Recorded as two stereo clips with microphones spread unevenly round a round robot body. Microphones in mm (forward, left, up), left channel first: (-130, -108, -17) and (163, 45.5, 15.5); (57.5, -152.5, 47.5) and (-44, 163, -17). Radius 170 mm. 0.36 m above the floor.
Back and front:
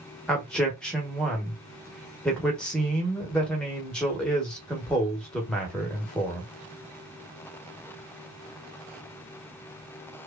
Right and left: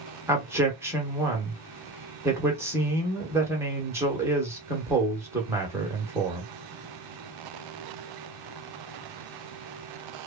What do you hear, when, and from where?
0.3 s a man speaking: 140° left, 0.8 m